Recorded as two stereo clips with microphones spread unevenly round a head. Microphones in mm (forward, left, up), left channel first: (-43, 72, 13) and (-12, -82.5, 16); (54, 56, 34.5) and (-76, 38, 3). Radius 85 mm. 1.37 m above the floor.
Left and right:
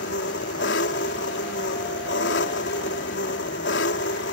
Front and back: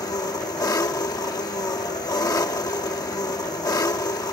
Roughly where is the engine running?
Left.